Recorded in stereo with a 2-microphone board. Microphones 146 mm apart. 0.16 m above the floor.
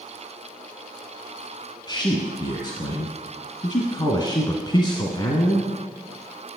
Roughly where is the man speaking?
Left.